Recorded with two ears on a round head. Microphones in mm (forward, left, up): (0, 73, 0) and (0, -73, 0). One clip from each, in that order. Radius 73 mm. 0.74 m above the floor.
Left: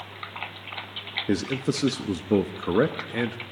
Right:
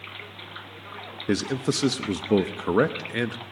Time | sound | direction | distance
1.3 | a man speaking | 25° right (ahead or behind) | 0.8 m